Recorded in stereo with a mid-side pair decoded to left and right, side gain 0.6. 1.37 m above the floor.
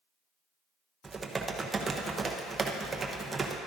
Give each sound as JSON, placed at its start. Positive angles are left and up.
{"t": 1.0, "sound": "typing on a keyboard", "azimuth_deg": -20, "distance_m": 0.9}